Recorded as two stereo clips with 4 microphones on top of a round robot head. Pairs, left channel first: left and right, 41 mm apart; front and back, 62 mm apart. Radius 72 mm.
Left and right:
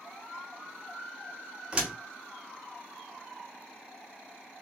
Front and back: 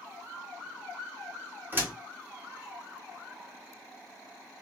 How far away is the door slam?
About 1.0 m.